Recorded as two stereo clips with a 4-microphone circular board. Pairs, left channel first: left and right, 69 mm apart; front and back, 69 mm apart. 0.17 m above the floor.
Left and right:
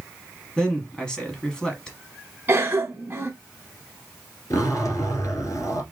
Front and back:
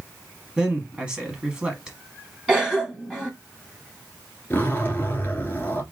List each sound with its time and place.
0.6 s a man speaking: 130° left, 1.0 m
2.5 s a cough: 110° right, 1.2 m
4.5 s a zipper: 60° left, 1.3 m